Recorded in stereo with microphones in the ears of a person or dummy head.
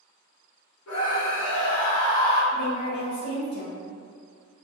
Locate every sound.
0.9 s a scream: 90° left, 0.6 m; by 2.4 s 25° left (ahead or behind), 0.8 m
2.5 s a woman speaking: 50° left (ahead or behind), 0.8 m